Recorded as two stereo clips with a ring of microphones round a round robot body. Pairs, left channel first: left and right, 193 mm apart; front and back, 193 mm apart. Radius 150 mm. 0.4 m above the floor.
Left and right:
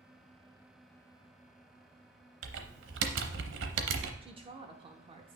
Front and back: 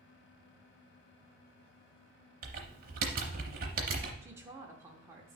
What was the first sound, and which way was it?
Typing on a keyboard, 125° right.